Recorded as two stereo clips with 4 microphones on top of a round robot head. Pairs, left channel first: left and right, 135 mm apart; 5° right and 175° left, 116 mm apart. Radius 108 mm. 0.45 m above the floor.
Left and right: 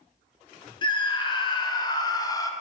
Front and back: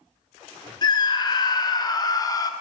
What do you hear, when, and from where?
0.8 s a scream: 40° left, 2.5 m; by 2.5 s 35° left, 1.6 m